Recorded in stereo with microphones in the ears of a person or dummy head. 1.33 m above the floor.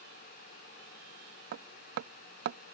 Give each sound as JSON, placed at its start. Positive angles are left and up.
{"t": 1.5, "sound": "hammering", "side_deg": -50}